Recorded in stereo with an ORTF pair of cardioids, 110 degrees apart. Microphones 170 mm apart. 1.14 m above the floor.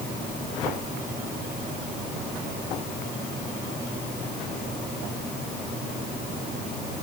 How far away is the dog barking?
I don't hear a dog barking.